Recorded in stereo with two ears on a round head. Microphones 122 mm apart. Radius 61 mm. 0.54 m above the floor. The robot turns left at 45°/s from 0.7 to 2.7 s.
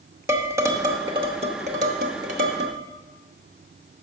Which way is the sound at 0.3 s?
20° right (ahead or behind).